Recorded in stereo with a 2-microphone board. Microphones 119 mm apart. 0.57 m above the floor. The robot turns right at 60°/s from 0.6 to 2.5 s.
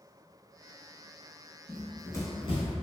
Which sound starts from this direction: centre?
Running footsteps, at 1.7 s.